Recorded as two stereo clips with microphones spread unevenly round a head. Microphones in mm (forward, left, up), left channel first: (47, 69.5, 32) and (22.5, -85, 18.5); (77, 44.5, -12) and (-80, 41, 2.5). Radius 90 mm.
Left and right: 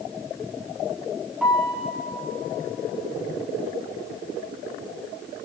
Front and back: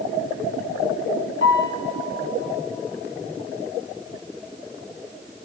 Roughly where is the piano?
Ahead.